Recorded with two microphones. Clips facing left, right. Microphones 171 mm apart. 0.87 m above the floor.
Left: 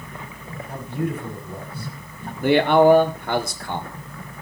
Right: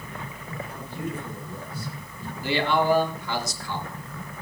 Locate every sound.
0.7 s a man speaking: 65° left (ahead or behind), 5 m
2.4 s a man speaking: 55° left (ahead or behind), 1.7 m